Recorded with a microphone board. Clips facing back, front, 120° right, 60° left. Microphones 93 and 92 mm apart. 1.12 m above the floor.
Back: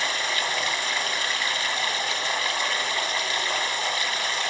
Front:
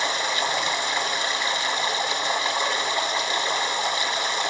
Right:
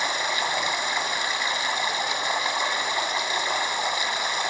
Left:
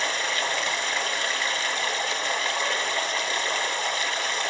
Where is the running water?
55° right, 1.2 m.